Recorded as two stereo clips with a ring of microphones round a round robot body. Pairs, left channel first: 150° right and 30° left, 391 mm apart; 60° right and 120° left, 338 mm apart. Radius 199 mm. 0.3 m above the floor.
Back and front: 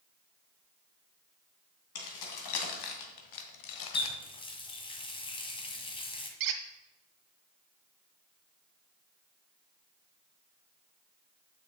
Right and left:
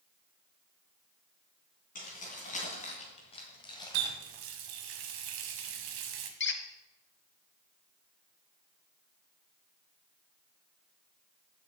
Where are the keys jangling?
130° right, 2.5 m; by 4.2 s 140° right, 1.1 m.